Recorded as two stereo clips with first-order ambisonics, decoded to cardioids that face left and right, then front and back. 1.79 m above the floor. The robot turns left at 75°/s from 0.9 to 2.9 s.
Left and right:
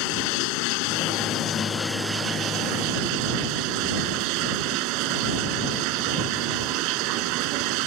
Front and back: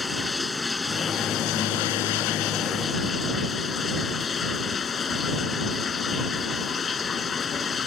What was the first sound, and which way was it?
Running water, 80° left.